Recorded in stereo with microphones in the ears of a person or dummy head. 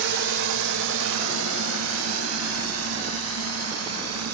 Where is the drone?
65° right (ahead or behind); by 4.3 s 90° right.